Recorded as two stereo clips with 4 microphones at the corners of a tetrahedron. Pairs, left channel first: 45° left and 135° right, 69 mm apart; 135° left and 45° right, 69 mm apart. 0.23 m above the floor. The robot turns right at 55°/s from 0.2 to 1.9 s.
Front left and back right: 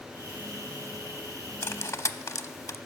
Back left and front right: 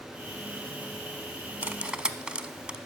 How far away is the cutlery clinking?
About 0.8 m.